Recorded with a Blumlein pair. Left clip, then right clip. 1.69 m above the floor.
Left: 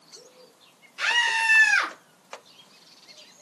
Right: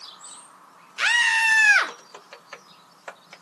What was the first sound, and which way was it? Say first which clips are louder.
A scream: right 3 dB; 65° right.